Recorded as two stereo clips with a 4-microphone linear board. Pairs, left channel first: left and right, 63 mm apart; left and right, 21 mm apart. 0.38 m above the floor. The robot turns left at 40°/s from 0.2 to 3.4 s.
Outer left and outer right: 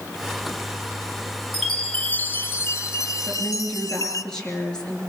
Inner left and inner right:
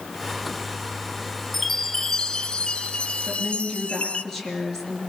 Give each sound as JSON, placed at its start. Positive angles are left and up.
{"t": 1.5, "sound": "a chime", "azimuth_deg": 180, "distance_m": 0.9}
{"t": 3.2, "sound": "a woman speaking", "side_deg": 5, "distance_m": 5.0}